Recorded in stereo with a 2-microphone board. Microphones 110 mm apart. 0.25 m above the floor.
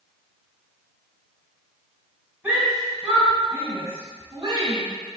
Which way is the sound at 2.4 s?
15° right (ahead or behind).